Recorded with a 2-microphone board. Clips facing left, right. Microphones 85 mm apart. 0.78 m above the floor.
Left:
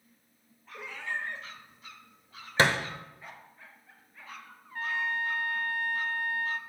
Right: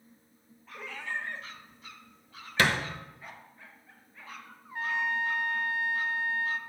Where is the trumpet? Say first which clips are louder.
Right 1 dB; 15° right (ahead or behind), 0.5 m.